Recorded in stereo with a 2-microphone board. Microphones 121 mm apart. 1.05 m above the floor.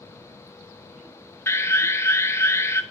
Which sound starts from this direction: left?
An alarm, at 1.5 s.